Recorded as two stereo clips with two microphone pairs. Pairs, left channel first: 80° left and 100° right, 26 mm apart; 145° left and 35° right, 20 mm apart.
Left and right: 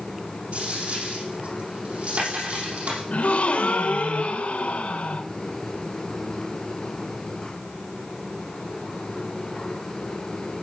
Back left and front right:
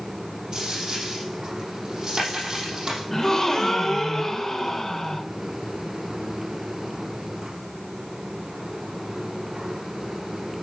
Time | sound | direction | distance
0.5 | a dropped coin | 95° right | 6.5 m
3.1 | a gasp | 80° left | 1.1 m